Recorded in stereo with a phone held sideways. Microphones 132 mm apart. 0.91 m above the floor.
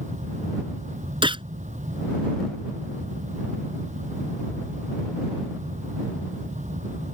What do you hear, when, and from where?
0.0 s a fan: 65° right (ahead or behind)
1.2 s a gunshot: 40° right (ahead or behind)